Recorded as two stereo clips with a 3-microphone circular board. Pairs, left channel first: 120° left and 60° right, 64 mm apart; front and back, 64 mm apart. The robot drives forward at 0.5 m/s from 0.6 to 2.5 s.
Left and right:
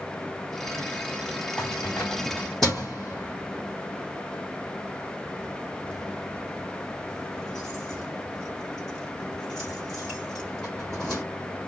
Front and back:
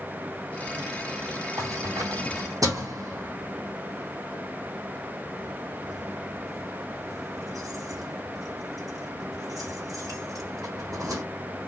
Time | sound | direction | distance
1.6 | keys jangling | 160° right | 4 m